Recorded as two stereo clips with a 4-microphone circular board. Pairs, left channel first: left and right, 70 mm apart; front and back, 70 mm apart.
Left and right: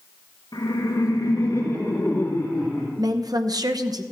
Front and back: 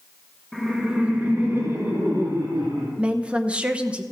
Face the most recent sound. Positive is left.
turn(degrees=-105)